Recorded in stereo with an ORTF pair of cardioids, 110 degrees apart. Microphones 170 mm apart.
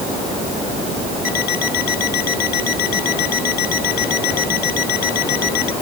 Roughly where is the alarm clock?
Ahead left.